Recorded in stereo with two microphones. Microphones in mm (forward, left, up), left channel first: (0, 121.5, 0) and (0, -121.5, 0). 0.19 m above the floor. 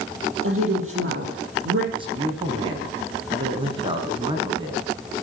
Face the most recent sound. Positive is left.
turn(degrees=-20)  # may be behind; listen again after turning